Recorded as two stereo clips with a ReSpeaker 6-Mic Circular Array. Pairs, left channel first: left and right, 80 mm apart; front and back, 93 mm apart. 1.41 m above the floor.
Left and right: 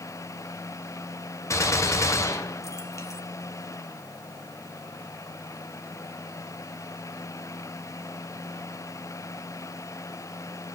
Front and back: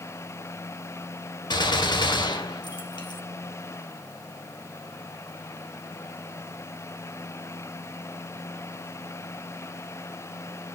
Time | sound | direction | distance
1.5 | a gunshot | 40° left | 1.3 m